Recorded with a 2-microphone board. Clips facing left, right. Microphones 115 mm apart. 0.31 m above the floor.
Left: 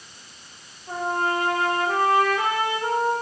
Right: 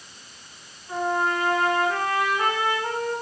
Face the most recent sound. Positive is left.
turn(degrees=60)  # may be behind; listen again after turning